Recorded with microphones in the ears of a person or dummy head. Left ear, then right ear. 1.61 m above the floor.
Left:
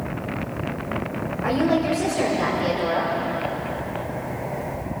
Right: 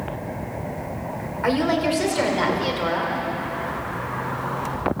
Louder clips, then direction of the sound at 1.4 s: Right 1 dB; 70° right (ahead or behind).